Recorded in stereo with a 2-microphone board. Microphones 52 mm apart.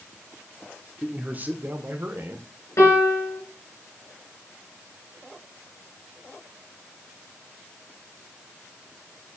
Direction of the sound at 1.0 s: 20° right (ahead or behind).